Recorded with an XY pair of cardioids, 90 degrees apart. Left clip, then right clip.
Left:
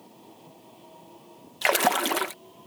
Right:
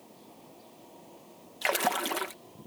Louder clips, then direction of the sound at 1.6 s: Left 6 dB; 45° left.